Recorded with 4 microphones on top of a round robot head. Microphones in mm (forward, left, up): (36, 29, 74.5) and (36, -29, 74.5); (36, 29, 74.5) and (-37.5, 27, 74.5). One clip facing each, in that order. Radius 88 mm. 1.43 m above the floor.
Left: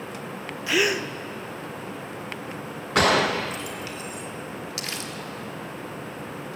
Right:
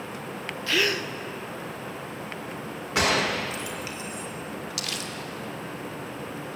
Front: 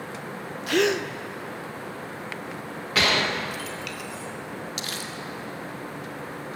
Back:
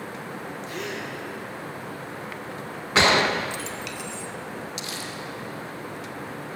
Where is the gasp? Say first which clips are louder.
Left 2 dB, front 13 dB; 15° left, 0.8 m.